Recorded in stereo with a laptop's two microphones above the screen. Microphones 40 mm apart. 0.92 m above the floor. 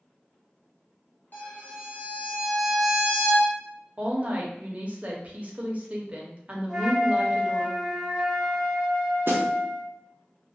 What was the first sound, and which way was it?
A violin, 55° left (ahead or behind).